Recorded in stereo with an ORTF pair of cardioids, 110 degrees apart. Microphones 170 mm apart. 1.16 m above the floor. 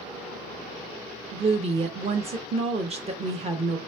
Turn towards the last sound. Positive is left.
turn(degrees=-40)